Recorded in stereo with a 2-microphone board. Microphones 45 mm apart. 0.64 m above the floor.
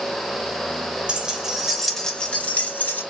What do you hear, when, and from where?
1.1 s keys jangling: 20° right (ahead or behind), 0.8 m; by 3.0 s 40° left (ahead or behind), 0.8 m